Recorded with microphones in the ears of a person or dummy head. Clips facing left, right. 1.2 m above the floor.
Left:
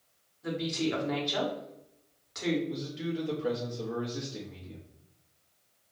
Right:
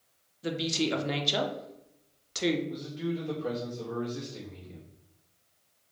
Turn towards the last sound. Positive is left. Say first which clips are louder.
# right 1 dB
turn(degrees=10)  # may be behind; listen again after turning